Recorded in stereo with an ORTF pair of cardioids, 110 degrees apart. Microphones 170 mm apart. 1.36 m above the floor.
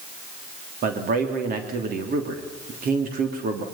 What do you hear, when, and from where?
0.8 s a man speaking: 60° right, 3 m